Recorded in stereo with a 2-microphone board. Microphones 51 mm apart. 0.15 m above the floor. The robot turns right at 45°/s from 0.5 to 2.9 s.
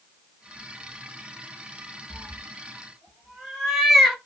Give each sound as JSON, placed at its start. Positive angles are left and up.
{"t": 2.1, "sound": "a cat meowing", "side_deg": 30, "distance_m": 1.1}